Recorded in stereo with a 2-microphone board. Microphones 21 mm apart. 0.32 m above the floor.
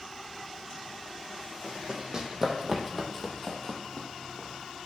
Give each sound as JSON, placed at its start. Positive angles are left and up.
{"t": 1.6, "sound": "running footsteps", "side_deg": -40, "distance_m": 1.2}